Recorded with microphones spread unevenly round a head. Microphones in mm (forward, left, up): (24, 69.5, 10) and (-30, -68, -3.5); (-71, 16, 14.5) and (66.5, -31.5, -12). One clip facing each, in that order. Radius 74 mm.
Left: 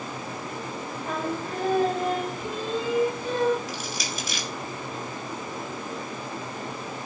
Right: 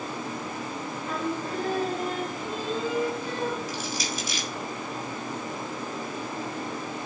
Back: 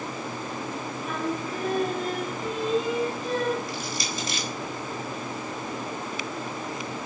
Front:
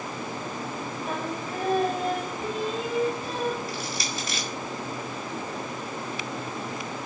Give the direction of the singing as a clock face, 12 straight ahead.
11 o'clock.